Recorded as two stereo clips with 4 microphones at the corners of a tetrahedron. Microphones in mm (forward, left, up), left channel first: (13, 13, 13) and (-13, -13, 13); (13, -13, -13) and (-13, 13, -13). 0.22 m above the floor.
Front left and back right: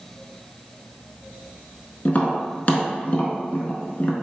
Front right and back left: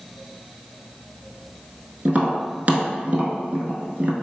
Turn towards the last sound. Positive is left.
turn(degrees=90)